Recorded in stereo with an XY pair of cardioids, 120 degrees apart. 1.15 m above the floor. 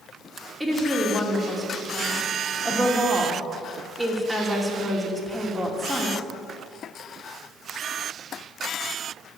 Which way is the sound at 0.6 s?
10° right.